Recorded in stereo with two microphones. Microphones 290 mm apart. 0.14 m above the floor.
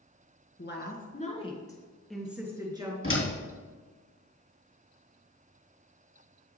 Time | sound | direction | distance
0.6 | a woman speaking | 40° left (ahead or behind) | 1.5 m
3.0 | a door slam | 50° left (ahead or behind) | 3 m